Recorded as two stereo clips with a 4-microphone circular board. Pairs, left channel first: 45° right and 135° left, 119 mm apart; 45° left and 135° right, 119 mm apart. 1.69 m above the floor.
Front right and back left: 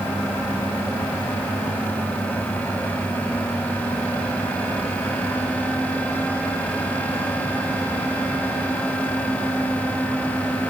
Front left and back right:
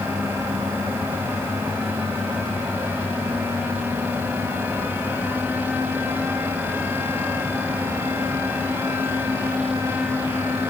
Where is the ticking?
I don't hear ticking.